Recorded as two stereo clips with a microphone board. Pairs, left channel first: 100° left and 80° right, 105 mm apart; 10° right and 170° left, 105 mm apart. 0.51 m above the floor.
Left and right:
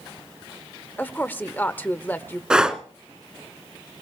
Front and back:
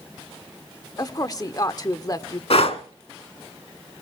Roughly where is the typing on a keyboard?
No typing on a keyboard in this recording.